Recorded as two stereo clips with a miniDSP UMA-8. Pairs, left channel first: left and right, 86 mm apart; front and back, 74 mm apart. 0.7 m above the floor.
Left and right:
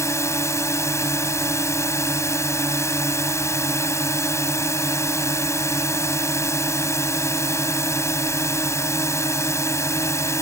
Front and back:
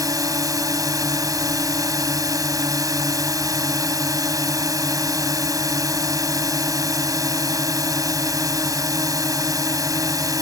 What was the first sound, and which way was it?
A drone, 145° left.